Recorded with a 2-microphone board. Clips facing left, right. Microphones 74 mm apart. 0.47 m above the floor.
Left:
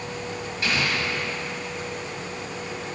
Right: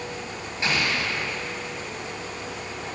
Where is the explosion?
25° right (ahead or behind), 1.3 m.